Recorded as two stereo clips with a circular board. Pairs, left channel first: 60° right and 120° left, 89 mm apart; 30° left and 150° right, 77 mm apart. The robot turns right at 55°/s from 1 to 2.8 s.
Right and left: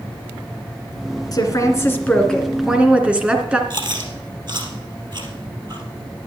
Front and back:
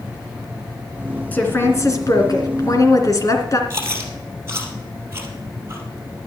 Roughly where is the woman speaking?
Ahead right.